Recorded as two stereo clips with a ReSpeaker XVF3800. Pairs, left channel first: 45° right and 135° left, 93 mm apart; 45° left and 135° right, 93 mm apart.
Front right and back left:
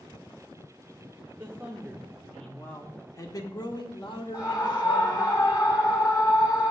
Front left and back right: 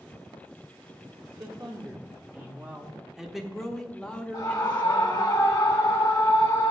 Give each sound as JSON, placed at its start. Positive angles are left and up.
{"t": 1.4, "sound": "a man speaking", "azimuth_deg": -165, "distance_m": 1.1}
{"t": 4.3, "sound": "a scream", "azimuth_deg": -5, "distance_m": 3.5}